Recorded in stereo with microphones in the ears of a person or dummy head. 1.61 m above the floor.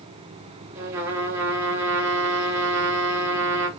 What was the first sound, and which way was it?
A trumpet, 15° right (ahead or behind).